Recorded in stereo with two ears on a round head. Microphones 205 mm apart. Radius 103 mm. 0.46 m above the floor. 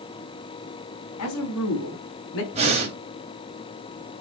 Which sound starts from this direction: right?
Breathing, at 2.5 s.